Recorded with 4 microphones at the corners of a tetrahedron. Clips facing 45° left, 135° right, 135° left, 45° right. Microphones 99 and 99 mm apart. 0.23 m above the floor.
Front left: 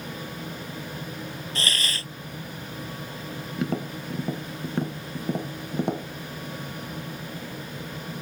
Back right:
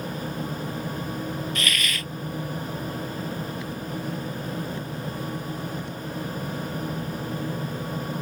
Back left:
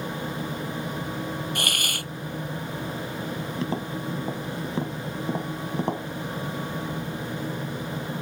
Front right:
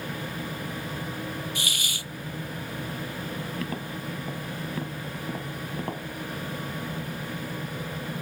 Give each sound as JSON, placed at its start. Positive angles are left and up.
{"t": 1.6, "sound": "a hiss", "azimuth_deg": 105}
{"t": 3.6, "sound": "tapping", "azimuth_deg": 70}